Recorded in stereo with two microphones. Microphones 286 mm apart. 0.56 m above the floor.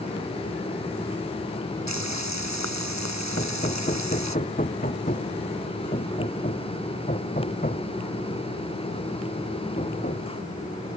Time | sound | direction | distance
1.9 | frying | 70° left (ahead or behind) | ?
3.4 | hammering | 30° left (ahead or behind) | ?